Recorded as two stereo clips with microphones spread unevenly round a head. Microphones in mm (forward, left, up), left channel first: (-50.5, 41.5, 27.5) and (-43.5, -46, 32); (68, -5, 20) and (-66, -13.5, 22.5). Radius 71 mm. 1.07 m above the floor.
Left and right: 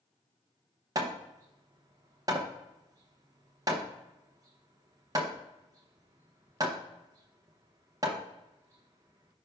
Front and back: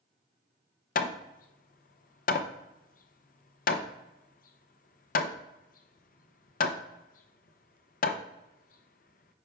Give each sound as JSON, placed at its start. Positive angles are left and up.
{"t": 0.9, "sound": "hammering", "azimuth_deg": -20, "distance_m": 0.6}